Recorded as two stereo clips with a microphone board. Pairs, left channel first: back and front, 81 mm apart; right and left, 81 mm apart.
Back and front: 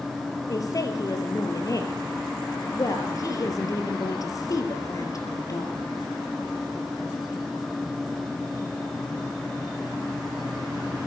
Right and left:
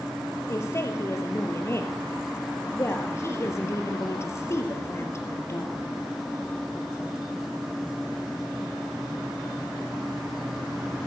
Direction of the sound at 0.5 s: 145° right.